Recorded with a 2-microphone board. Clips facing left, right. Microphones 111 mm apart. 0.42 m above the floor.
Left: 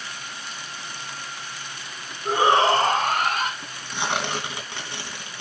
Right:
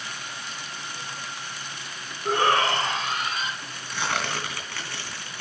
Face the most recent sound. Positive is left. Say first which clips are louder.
# left 2 dB
turn(degrees=20)  # may be behind; listen again after turning